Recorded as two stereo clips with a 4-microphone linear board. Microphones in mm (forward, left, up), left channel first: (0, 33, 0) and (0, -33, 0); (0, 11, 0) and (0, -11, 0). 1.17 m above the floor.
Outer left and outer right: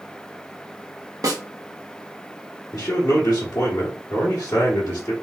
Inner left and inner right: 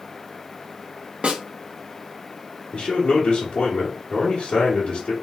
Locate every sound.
1.2 s a snare drum: 65° right (ahead or behind), 0.7 m
2.7 s a man speaking: 65° left (ahead or behind), 1.1 m